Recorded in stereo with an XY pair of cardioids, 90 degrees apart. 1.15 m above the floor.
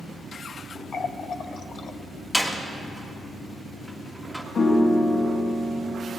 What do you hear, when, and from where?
0.9 s a running tap: 55° left, 0.8 m
2.3 s a door slam: 5° left, 1.6 m
4.5 s a piano: 40° left, 1.8 m